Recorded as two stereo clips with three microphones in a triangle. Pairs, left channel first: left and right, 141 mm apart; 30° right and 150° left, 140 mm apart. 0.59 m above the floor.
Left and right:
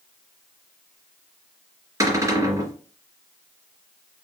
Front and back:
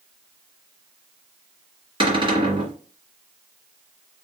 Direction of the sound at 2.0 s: 155° right.